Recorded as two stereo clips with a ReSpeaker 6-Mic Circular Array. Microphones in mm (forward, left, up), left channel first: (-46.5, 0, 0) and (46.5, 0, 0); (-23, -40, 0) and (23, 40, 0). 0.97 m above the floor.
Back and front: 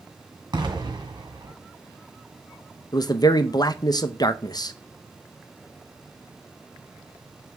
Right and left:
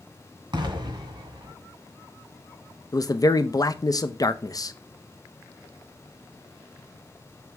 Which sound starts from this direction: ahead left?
An explosion, at 0.5 s.